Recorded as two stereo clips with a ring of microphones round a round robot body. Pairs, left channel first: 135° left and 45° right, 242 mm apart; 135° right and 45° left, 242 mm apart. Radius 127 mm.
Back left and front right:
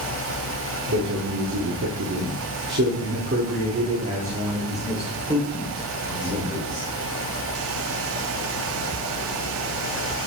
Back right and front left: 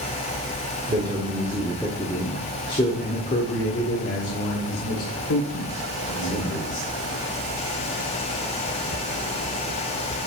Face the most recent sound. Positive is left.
turn(degrees=-120)